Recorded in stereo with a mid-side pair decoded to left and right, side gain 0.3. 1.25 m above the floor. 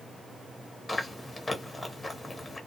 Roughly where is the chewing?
Ahead left.